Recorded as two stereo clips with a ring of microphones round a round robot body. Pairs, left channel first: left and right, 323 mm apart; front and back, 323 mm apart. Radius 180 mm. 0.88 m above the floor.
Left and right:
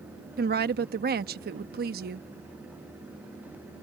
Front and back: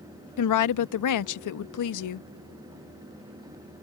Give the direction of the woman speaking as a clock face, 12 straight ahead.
1 o'clock.